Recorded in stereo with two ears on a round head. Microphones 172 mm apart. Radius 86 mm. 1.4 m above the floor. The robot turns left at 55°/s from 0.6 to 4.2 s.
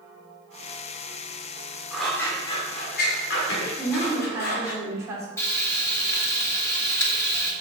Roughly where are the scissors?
Centre.